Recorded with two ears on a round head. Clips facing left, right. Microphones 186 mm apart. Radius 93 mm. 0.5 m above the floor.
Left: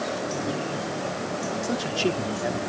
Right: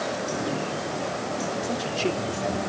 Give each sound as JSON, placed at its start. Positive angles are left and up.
{"t": 1.6, "sound": "a man speaking", "side_deg": 15}